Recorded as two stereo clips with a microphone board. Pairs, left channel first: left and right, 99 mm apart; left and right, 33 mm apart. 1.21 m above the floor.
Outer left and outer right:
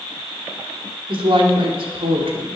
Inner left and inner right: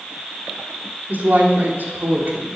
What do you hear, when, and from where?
1.1 s a woman speaking: 65° right (ahead or behind), 4 m